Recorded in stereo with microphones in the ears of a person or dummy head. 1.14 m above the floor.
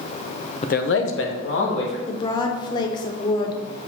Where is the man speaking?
30° left (ahead or behind), 0.6 m; by 2.0 s 75° left (ahead or behind), 2.5 m.